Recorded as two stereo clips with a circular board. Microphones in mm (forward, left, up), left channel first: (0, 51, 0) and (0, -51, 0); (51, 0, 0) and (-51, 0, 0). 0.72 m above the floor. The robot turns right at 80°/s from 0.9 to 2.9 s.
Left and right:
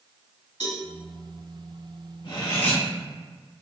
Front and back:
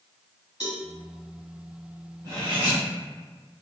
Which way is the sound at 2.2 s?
130° left.